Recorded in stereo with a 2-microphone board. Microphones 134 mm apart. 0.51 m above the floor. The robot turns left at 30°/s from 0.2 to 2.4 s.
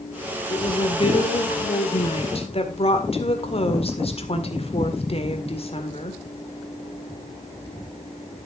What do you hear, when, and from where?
0.5 s a woman speaking: 130° left, 1.9 m; by 6.2 s 75° left, 1.9 m